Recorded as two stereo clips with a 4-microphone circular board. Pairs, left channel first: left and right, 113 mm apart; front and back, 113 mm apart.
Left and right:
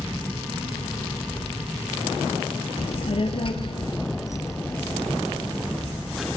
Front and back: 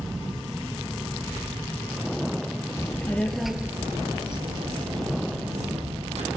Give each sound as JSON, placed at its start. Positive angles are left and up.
{"t": 2.8, "sound": "a child speaking", "azimuth_deg": 65, "distance_m": 2.5}